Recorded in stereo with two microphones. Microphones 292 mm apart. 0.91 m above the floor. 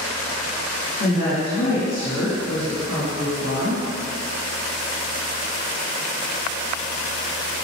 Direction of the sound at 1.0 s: 45° left (ahead or behind).